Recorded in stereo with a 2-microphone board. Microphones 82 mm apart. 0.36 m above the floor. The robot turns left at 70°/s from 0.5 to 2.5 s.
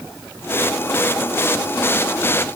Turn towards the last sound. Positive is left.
No sound to turn to.